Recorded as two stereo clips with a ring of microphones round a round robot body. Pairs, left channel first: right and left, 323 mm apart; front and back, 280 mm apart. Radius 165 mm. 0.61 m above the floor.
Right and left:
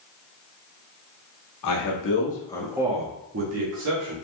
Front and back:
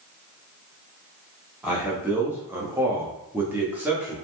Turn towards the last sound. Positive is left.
turn(degrees=95)